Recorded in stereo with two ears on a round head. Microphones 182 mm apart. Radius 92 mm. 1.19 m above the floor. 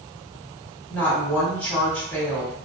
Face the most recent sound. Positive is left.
turn(degrees=10)  # may be behind; listen again after turning